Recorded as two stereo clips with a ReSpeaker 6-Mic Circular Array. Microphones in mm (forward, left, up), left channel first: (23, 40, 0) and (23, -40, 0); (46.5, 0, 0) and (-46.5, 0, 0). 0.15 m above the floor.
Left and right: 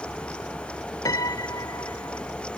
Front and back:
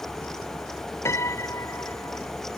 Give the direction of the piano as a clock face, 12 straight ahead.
10 o'clock.